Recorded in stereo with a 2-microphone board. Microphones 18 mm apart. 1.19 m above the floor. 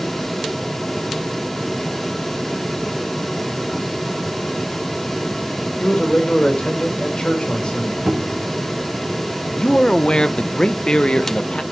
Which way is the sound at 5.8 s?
60° left (ahead or behind).